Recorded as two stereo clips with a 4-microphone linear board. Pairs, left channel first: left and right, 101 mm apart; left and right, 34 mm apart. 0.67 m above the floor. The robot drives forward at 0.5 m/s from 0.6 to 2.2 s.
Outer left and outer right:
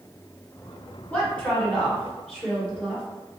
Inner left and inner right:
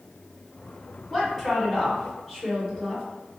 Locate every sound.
1.1 s a woman speaking: 10° left (ahead or behind), 1.9 m